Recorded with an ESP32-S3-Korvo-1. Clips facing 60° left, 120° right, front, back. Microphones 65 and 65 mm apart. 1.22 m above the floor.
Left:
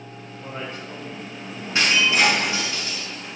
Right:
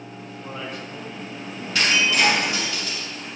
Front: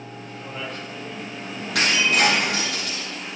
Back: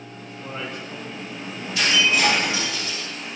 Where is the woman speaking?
115° left, 4 m.